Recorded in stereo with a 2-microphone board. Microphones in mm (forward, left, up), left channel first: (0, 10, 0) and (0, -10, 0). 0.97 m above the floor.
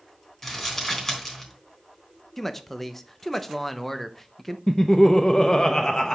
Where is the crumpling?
20° left (ahead or behind), 3.5 m.